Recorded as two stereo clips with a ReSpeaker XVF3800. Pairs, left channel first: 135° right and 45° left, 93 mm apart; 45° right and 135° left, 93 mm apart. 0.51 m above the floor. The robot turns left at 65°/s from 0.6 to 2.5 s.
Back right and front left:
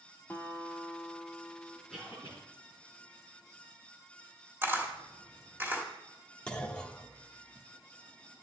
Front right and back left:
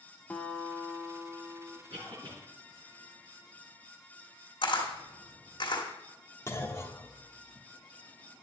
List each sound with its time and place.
0.3 s a guitar: 95° right, 1.0 m; by 1.8 s 175° right, 1.0 m
1.9 s a cough: 135° left, 5 m; by 2.4 s 105° left, 5 m
4.6 s a camera shutter: 20° right, 1.5 m
6.5 s a clunk: 65° right, 0.9 m